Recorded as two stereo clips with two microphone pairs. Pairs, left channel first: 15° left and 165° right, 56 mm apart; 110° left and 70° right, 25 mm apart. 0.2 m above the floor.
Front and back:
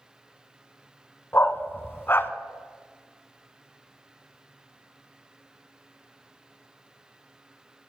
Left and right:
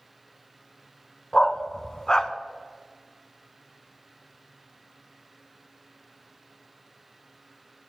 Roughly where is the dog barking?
Ahead left.